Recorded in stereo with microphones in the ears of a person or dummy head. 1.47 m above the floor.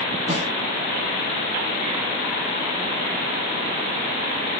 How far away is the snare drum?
About 1.4 m.